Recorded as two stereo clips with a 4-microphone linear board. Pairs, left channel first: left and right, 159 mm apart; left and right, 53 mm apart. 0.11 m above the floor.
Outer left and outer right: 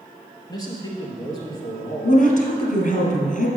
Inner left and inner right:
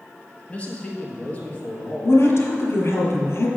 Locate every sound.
0.5 s a man speaking: 25° left (ahead or behind), 1.9 m
2.0 s a woman speaking: 55° left (ahead or behind), 2 m